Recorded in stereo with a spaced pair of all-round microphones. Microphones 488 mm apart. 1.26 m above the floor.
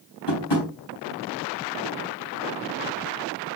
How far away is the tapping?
About 3 m.